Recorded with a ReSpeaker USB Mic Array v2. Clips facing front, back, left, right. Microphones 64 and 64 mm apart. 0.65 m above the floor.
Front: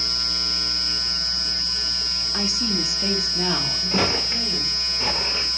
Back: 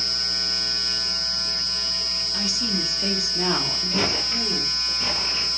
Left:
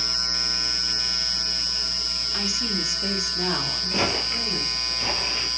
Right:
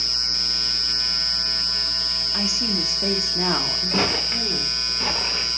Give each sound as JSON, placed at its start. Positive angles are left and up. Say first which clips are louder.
{"t": 2.3, "sound": "a woman speaking", "louder": "front 2 dB, right 2 dB", "azimuth_deg": -30, "distance_m": 1.1}
{"t": 3.9, "sound": "footsteps", "louder": "front 3 dB, right 2 dB", "azimuth_deg": -50, "distance_m": 4.0}